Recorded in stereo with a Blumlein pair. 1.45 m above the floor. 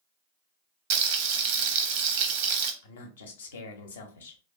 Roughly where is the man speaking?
Ahead left.